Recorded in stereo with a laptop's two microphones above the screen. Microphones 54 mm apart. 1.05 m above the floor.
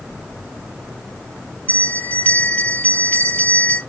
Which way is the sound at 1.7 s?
30° left (ahead or behind).